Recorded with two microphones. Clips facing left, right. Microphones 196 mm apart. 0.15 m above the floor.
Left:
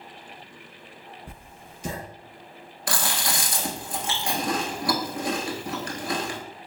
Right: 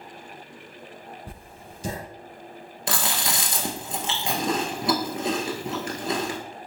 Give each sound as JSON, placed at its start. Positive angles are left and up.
{"t": 1.3, "sound": "writing", "side_deg": -35, "distance_m": 2.0}
{"t": 2.9, "sound": "chewing", "side_deg": -25, "distance_m": 0.9}